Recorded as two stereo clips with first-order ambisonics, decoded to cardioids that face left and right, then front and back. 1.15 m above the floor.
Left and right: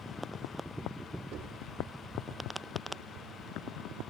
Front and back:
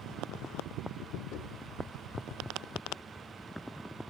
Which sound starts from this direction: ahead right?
Knocking, at 1.3 s.